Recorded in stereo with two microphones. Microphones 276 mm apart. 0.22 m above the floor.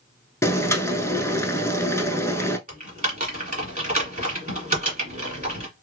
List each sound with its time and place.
0.4 s boiling: 10° left (ahead or behind), 0.6 m
2.7 s typing on a keyboard: 30° right (ahead or behind), 1.6 m